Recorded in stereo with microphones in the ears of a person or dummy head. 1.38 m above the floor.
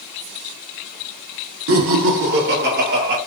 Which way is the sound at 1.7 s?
55° right (ahead or behind).